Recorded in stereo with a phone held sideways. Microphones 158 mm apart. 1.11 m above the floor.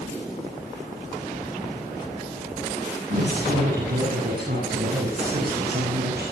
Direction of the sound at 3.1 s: 65° right (ahead or behind).